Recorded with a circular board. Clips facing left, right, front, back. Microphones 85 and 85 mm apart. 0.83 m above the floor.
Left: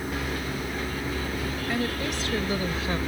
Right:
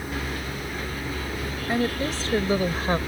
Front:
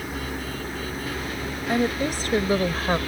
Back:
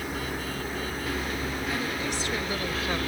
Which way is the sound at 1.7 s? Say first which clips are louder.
Right 5 dB, front 11 dB; 30° right.